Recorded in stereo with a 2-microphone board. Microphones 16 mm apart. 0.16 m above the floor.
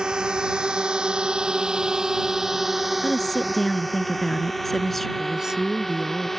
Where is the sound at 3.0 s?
15° left (ahead or behind).